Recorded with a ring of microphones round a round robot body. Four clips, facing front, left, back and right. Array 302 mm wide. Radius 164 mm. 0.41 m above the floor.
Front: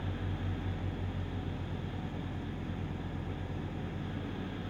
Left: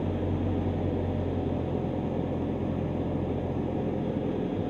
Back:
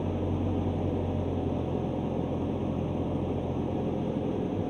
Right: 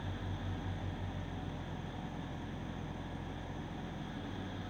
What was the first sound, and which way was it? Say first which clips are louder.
An engine running: left 14 dB, back 10 dB; 130° left.